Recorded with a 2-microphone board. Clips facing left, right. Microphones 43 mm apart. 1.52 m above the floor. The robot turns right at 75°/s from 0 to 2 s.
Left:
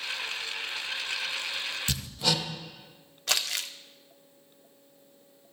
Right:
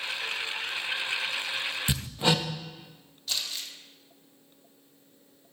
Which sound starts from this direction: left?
Crumpling, at 3.3 s.